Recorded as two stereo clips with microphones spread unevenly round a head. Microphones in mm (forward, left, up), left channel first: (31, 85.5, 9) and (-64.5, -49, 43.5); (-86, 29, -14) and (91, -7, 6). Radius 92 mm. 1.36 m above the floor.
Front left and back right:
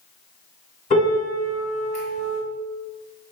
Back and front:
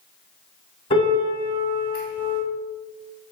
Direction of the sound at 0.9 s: 110° left.